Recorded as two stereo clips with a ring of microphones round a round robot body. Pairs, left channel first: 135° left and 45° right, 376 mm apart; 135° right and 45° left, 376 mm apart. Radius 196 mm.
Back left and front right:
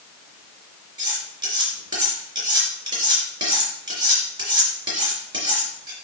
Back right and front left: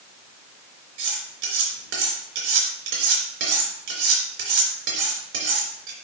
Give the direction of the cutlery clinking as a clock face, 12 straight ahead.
11 o'clock.